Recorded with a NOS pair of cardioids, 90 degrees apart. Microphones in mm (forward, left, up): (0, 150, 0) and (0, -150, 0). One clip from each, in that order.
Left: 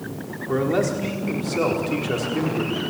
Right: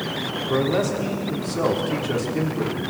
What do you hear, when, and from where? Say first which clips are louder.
0.5 s a man speaking: left 1 dB; 10° left, 4.5 m